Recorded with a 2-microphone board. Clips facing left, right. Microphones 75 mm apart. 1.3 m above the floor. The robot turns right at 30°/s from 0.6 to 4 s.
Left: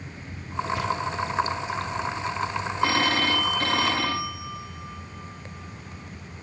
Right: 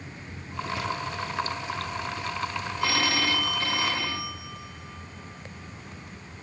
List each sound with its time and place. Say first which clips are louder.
2.8 s a phone ringing: left 3 dB; 30° left, 1.7 m; by 6.4 s 65° left, 1.7 m